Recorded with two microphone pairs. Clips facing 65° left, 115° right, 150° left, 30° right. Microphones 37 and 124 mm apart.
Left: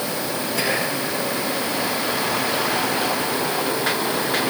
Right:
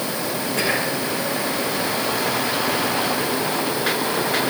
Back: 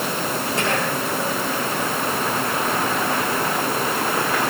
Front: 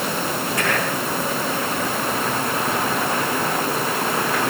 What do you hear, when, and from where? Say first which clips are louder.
0.6 s whispering: right 1 dB, back 1 dB; 150° right, 7.5 m